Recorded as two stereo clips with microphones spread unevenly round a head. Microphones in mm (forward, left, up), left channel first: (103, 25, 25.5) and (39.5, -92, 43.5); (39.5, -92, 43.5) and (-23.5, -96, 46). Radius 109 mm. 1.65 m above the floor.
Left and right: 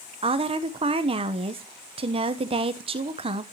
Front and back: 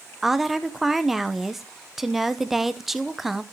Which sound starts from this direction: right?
A woman speaking, at 0.2 s.